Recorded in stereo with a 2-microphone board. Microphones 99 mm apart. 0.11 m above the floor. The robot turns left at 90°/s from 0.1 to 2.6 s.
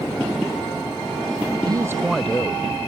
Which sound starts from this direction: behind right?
A man speaking, at 1.6 s.